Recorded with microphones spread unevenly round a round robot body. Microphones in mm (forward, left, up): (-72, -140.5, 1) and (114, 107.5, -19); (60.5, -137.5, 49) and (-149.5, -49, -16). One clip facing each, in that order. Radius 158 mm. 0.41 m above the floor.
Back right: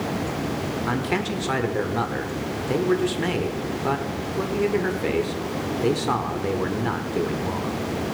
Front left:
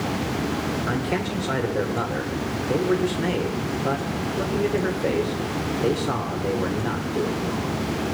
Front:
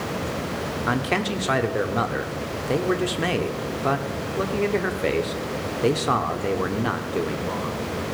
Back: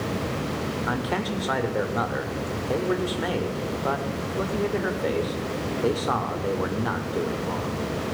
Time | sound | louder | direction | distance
0.9 | a man speaking | even, front 6 dB | 70° right | 1.2 m